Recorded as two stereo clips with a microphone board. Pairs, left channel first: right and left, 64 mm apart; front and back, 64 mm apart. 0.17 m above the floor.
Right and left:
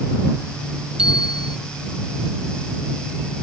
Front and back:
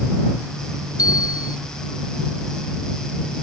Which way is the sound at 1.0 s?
15° left.